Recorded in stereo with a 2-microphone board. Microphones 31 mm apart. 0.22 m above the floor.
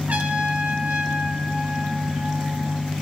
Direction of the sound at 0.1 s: 65° right (ahead or behind).